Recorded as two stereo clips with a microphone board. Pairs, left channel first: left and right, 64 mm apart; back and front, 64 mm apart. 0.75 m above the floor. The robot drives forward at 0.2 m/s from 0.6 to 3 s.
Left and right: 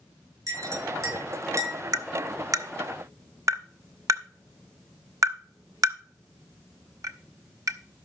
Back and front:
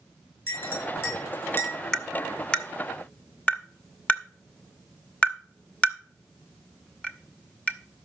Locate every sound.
0.5 s a clink: 130° right, 5.5 m
1.9 s tapping: 100° right, 0.9 m; by 7.8 s 115° right, 0.9 m